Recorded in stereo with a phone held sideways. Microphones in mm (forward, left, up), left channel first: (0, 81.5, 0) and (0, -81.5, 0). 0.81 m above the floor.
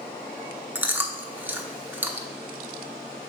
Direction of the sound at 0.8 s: 10° right (ahead or behind).